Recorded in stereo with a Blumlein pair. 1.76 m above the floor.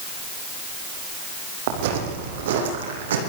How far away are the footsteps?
About 5.5 m.